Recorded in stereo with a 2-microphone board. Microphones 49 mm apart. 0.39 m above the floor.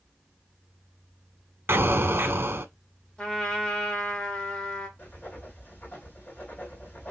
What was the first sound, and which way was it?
An explosion, 50° right (ahead or behind).